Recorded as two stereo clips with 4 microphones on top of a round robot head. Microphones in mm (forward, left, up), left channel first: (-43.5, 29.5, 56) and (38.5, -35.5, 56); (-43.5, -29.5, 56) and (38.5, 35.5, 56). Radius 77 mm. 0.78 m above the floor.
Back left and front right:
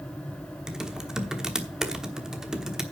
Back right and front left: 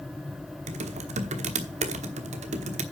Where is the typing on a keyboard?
45° left, 1.2 m.